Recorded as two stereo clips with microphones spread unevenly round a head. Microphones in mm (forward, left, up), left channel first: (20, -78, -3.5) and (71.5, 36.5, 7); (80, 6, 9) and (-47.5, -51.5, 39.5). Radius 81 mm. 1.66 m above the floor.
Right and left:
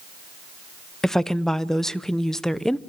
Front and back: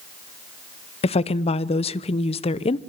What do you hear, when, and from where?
1.0 s a woman speaking: 25° right, 0.8 m